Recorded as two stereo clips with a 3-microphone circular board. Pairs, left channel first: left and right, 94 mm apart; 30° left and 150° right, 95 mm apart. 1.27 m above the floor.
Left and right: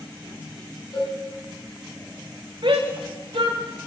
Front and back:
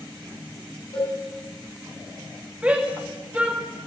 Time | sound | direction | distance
0.9 | a cowbell | 50° left | 8.5 m
2.6 | a shout | 75° right | 3 m